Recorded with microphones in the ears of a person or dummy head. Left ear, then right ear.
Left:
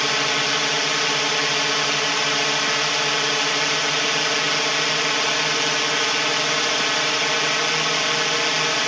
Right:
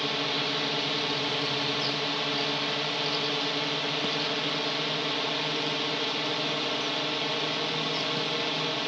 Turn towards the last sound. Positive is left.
turn(degrees=60)  # may be behind; listen again after turning